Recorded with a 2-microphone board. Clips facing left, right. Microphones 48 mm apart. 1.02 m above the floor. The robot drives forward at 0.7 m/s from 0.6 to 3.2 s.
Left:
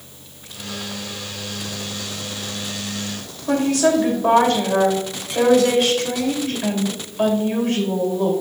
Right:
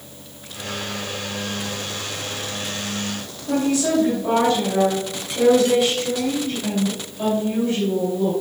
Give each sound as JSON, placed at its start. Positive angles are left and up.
{"t": 3.5, "sound": "a woman speaking", "side_deg": 75, "distance_m": 2.5}